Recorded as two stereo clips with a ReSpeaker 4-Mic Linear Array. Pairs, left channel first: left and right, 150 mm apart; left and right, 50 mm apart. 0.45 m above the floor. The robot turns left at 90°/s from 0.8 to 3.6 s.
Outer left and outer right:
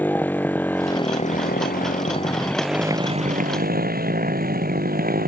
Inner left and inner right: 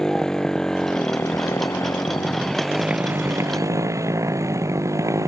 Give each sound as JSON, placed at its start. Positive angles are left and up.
{"t": 0.0, "sound": "a motorcycle", "azimuth_deg": 170}